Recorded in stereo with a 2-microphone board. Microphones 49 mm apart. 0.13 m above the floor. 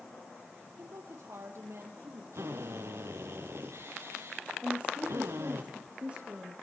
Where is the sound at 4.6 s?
40° right (ahead or behind), 4 m.